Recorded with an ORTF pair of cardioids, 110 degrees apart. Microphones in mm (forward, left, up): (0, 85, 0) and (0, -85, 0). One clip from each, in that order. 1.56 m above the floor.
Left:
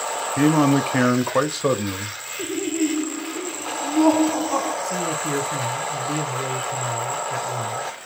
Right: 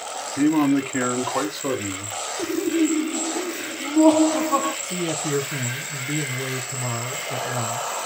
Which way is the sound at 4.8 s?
10° right.